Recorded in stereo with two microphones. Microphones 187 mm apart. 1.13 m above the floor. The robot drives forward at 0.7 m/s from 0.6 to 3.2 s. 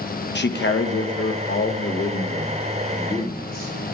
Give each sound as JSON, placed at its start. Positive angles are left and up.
{"t": 0.3, "sound": "a man speaking", "side_deg": 65, "distance_m": 0.8}